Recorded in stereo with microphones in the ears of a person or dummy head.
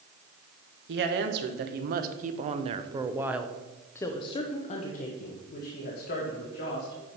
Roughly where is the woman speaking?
Right.